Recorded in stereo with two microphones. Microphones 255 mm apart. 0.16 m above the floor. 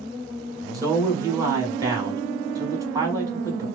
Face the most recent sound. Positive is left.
turn(degrees=-15)  # may be behind; listen again after turning